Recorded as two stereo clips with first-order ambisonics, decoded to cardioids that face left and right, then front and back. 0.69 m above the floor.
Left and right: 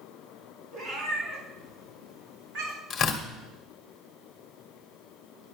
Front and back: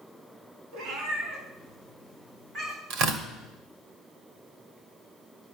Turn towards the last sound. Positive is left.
turn(degrees=155)